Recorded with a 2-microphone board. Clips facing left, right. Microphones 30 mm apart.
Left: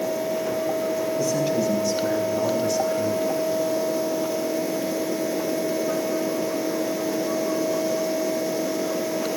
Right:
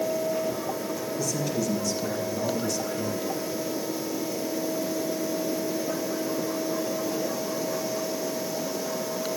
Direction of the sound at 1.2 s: 30° left (ahead or behind).